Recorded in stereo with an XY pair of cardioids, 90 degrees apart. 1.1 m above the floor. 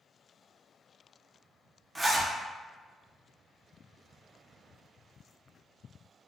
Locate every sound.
1.9 s a zipper: 15° right, 0.5 m